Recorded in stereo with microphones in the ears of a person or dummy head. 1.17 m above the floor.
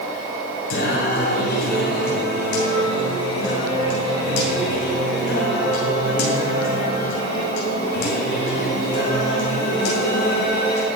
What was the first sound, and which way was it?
Singing, 60° left (ahead or behind).